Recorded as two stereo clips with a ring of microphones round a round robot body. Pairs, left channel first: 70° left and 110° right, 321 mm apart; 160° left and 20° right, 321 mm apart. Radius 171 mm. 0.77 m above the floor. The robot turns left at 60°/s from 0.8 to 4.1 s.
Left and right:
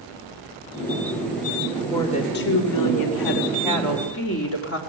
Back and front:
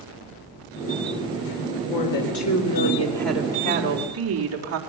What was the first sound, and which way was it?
A woman speaking, 155° left.